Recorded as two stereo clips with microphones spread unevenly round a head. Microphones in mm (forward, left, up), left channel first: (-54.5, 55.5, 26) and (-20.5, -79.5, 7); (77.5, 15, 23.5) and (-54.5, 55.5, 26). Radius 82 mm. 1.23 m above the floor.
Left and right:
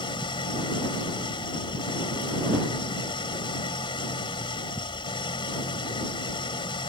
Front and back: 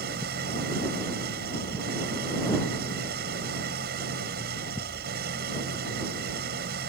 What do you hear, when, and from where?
0.0 s an engine running: 160° left